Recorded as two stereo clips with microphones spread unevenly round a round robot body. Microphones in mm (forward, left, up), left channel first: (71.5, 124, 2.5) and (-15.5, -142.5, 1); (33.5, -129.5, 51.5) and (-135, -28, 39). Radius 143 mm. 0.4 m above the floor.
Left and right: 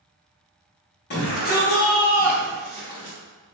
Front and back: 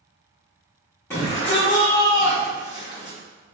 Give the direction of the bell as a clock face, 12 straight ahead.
I don't hear a bell.